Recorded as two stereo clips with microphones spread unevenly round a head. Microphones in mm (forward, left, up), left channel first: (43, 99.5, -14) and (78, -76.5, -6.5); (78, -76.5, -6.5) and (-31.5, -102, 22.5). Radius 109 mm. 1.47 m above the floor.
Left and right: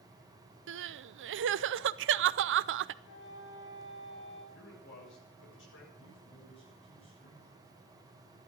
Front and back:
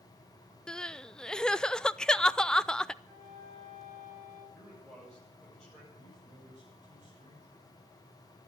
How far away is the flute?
About 4.5 m.